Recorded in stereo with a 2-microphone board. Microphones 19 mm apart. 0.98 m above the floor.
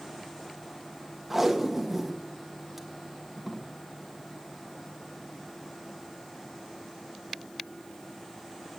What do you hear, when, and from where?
1.3 s tape being pulled: 10° right (ahead or behind), 1.3 m